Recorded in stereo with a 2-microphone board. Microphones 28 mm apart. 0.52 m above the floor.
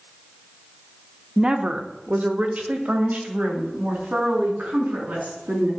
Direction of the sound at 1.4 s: 25° right (ahead or behind).